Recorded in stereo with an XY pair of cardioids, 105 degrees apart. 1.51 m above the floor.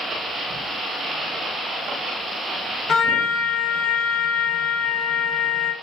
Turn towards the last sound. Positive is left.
turn(degrees=60)